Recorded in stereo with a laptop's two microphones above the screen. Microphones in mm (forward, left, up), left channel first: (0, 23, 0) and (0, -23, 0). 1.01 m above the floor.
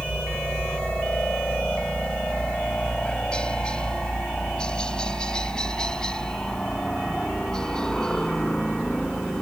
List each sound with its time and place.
0.0 s a helicopter: 30° left (ahead or behind); by 9.4 s 15° left (ahead or behind)